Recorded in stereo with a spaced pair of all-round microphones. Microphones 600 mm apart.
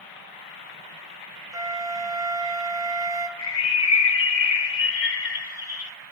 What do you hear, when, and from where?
1.5 s a flute: 5° right (ahead or behind), 0.6 m
3.4 s a bird: 70° left (ahead or behind), 0.8 m